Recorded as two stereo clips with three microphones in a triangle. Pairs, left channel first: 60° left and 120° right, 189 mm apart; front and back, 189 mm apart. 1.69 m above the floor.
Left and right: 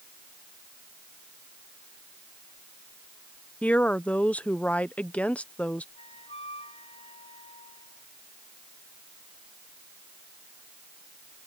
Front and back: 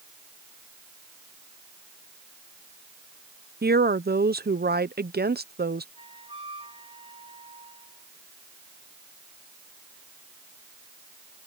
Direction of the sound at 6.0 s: 120° left.